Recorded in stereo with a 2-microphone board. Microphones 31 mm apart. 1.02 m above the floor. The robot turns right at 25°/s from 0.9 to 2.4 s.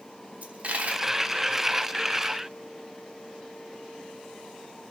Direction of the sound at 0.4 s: 60° right (ahead or behind).